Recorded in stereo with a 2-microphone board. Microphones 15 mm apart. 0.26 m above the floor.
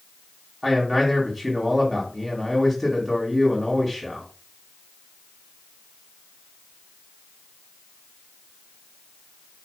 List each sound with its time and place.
0.6 s a man speaking: 15° right (ahead or behind), 2 m